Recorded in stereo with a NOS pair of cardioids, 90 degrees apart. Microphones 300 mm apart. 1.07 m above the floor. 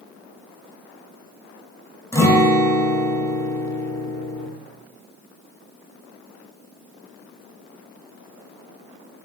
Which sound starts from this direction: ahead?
A guitar, at 2.1 s.